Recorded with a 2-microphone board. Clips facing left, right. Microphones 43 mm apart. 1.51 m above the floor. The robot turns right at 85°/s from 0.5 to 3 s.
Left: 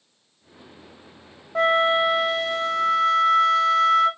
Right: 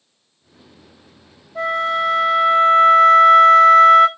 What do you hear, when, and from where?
1.6 s a flute: 125° left, 0.8 m; by 4.1 s 110° right, 0.8 m